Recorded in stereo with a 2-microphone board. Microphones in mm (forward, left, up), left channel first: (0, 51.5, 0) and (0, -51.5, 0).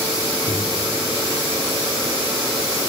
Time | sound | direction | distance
0.5 | a microwave | 80° left | 6.5 m